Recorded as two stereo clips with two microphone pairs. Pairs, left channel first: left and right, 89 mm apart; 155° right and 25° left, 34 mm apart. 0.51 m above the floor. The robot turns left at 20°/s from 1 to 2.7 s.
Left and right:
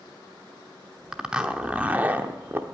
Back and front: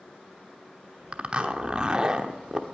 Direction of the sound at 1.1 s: 10° right.